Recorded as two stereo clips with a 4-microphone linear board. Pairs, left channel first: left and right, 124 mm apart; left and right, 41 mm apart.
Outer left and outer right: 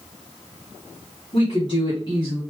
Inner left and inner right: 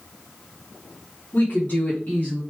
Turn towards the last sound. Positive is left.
turn(degrees=35)  # may be behind; listen again after turning